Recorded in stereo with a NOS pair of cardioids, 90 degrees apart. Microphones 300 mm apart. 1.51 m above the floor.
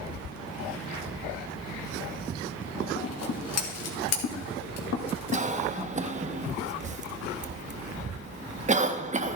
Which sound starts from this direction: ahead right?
A cough, at 5.3 s.